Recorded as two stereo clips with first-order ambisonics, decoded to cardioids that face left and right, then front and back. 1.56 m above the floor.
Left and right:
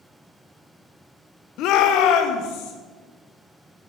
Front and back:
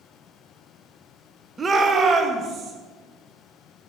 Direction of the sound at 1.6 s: 110° left.